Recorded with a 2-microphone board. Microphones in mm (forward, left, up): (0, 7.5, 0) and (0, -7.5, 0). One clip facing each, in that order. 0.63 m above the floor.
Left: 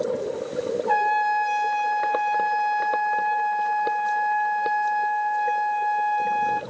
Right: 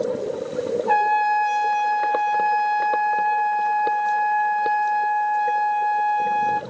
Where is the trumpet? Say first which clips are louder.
Right 3 dB; 20° right (ahead or behind), 1.1 m.